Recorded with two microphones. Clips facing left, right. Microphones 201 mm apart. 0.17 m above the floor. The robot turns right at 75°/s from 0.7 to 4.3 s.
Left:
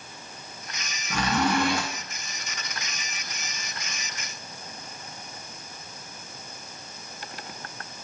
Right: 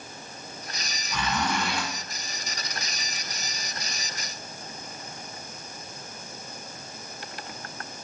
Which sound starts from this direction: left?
A zipper, at 1.1 s.